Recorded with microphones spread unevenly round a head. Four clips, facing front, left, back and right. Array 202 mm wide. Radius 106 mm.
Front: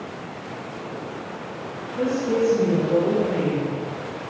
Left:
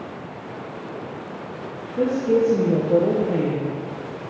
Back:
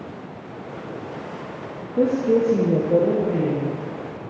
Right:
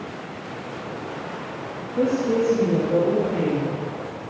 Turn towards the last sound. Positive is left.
turn(degrees=115)